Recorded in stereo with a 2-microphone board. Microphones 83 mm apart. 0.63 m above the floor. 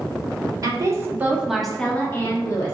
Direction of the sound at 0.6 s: 45° right (ahead or behind).